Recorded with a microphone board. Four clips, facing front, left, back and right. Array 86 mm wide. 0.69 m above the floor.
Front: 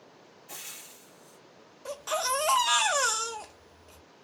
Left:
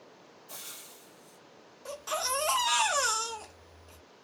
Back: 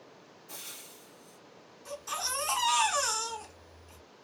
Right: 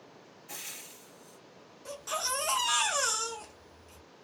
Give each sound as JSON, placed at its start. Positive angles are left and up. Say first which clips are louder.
{"t": 0.5, "sound": "frying", "louder": "right 2 dB, front 1 dB", "azimuth_deg": -60, "distance_m": 2.5}
{"t": 1.9, "sound": "a baby crying", "louder": "left 2 dB, front 8 dB", "azimuth_deg": 10, "distance_m": 1.5}